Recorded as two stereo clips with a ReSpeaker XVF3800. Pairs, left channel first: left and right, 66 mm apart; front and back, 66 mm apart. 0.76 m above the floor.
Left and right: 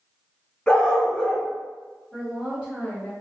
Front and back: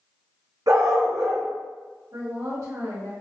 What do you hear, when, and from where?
0.7 s a dog barking: 165° left, 1.6 m
2.1 s a woman speaking: 165° right, 1.8 m